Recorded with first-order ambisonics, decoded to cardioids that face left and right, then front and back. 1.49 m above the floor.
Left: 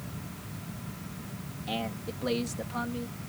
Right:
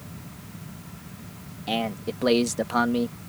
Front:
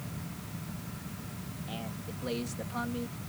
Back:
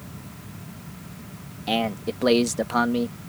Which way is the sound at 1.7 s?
155° right.